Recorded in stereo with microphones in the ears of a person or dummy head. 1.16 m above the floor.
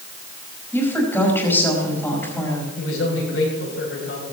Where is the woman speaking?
10° left (ahead or behind), 5 m.